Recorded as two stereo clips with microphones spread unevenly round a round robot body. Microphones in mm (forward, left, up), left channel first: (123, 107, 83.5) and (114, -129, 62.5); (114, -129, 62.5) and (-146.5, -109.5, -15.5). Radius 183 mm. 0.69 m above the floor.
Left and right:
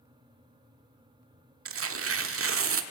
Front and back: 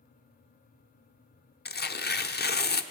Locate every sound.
1.6 s tearing paper: 60° right, 1.1 m